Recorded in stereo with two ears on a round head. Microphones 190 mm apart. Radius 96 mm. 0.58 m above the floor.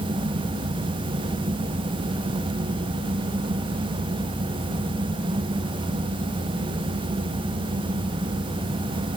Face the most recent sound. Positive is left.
No sound to turn to.